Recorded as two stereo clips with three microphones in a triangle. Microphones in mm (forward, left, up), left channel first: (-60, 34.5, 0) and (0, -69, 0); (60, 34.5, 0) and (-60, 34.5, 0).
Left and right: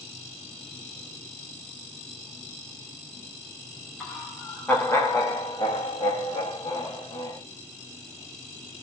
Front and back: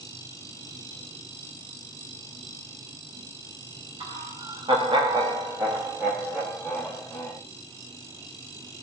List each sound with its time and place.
4.0 s laughter: 155° right, 1.0 m; by 7.4 s 75° left, 1.2 m